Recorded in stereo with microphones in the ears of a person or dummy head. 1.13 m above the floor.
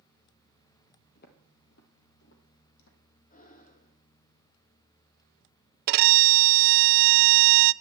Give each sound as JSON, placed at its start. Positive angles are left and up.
{"t": 1.1, "sound": "footsteps", "side_deg": 50, "distance_m": 2.0}
{"t": 3.3, "sound": "breathing", "side_deg": 45, "distance_m": 1.3}
{"t": 5.9, "sound": "a violin", "side_deg": -55, "distance_m": 0.5}